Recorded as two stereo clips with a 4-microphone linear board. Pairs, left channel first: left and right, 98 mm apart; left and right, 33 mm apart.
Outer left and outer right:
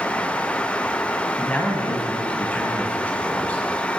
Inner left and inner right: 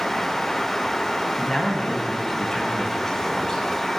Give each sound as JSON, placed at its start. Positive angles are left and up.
{"t": 1.4, "sound": "a man speaking", "side_deg": 15, "distance_m": 1.5}